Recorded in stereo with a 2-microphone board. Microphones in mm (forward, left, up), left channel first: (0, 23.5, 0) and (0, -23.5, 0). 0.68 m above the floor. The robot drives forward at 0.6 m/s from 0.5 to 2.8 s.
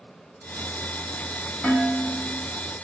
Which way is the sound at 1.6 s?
30° left (ahead or behind).